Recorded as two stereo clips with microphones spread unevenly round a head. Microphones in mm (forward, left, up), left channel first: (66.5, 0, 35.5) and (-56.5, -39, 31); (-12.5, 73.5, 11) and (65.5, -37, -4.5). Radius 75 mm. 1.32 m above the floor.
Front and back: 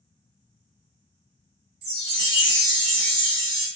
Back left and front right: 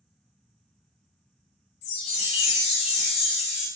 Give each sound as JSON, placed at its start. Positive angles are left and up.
{"t": 1.8, "sound": "a chime", "azimuth_deg": 175, "distance_m": 0.5}